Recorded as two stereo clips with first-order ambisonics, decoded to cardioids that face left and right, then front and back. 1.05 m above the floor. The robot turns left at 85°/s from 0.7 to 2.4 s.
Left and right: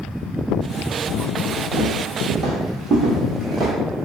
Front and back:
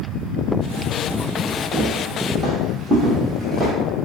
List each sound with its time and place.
1.7 s footsteps: 70° right, 1.9 m; by 3.7 s 135° right, 1.0 m